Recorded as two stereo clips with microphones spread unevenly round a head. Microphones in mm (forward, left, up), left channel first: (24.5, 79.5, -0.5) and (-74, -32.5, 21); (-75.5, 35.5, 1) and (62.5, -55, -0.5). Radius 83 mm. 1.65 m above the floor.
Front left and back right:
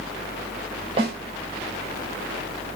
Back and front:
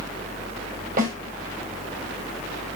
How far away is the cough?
No cough in this recording.